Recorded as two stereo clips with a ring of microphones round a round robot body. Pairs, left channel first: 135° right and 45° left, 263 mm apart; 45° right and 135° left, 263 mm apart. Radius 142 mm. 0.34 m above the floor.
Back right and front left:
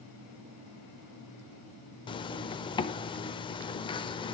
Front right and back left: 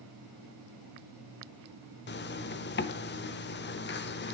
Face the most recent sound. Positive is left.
turn(degrees=-70)